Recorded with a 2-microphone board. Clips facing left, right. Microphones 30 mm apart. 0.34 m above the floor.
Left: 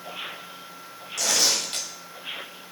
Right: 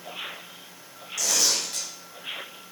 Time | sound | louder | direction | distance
1.2 | tearing paper | left 2 dB | 50° left (ahead or behind) | 1.5 m